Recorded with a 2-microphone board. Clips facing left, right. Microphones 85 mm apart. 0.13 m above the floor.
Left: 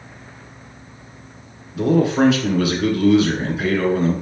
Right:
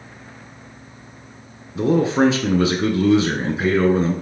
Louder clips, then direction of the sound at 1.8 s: Left 1 dB; 25° right (ahead or behind).